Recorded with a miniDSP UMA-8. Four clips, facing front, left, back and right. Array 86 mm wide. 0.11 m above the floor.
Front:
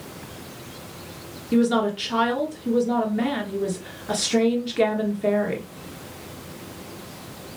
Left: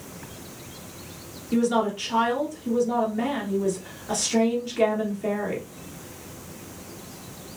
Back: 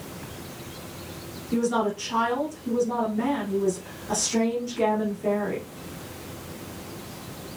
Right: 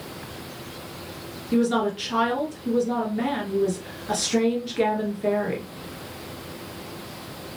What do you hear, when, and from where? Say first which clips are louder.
1.5 s a woman speaking: right 1 dB, front 4 dB; 20° right, 1.6 m